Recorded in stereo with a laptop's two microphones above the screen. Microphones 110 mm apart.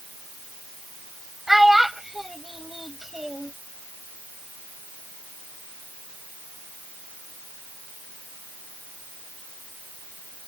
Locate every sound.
1.5 s a child speaking: centre (ahead or behind)